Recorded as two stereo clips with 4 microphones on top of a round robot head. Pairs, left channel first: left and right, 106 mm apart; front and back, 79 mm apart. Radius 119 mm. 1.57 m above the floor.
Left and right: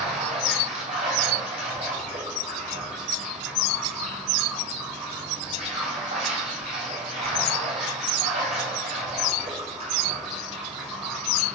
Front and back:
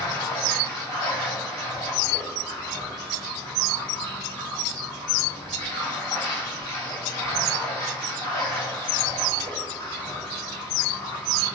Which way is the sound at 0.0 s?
60° right.